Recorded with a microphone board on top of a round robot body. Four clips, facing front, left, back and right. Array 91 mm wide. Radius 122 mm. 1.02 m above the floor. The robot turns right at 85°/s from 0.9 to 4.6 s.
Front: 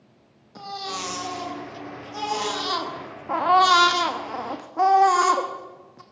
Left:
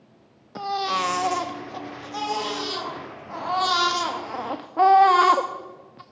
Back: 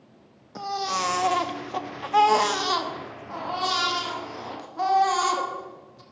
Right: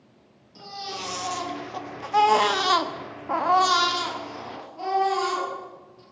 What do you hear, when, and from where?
0.6 s a baby crying: 110° left, 1.2 m; by 6.0 s 65° left, 1.2 m